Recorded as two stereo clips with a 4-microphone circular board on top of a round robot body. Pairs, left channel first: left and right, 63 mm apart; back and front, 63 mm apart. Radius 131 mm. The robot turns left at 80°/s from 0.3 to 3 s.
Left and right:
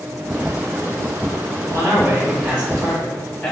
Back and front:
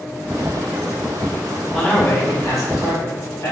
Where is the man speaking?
95° right, 1.7 m; by 3.5 s 165° left, 1.7 m.